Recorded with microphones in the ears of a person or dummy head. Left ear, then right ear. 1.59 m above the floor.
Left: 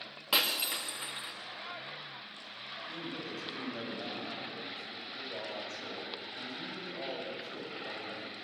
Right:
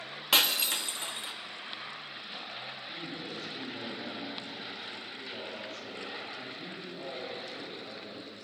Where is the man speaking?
50° left (ahead or behind), 7.5 m.